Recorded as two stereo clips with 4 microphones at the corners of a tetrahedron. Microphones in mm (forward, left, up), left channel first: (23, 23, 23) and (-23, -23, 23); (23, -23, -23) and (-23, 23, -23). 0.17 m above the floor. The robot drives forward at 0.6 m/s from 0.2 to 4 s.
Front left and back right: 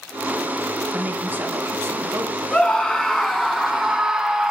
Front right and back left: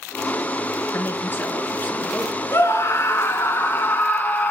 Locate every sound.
0.9 s a woman speaking: 75° right, 1.9 m; by 2.4 s 110° right, 2 m
2.5 s a scream: 30° right, 1.9 m; by 4.5 s 65° right, 1.4 m